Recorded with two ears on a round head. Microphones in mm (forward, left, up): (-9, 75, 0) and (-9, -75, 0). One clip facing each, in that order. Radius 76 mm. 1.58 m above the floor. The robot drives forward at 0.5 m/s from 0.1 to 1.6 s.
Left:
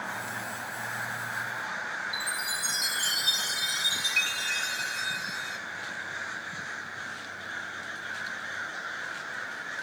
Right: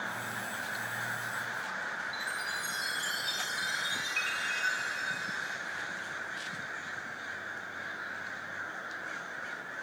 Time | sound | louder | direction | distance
2.1 | a chime | left 2 dB | 65° left (ahead or behind) | 2.5 m